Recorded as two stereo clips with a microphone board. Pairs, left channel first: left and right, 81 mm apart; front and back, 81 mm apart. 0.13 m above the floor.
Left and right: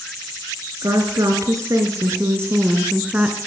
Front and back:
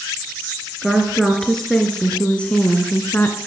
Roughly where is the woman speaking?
Right.